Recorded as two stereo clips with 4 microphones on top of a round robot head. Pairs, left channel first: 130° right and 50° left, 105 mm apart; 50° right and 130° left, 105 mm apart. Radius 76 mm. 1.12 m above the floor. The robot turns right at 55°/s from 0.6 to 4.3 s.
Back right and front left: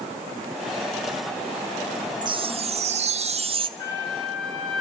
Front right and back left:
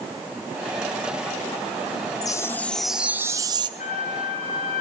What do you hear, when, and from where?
2.2 s a chime: 5° left, 1.4 m; by 3.7 s 85° left, 1.4 m
3.8 s a trumpet: 65° right, 6 m; by 4.8 s 40° right, 6 m